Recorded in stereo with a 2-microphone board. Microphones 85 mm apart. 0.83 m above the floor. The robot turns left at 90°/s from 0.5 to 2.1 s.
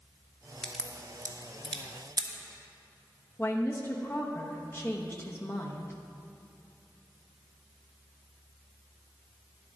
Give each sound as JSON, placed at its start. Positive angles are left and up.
{"t": 0.6, "sound": "a crack", "side_deg": 5, "distance_m": 1.1}
{"t": 3.4, "sound": "a woman speaking", "side_deg": 30, "distance_m": 1.0}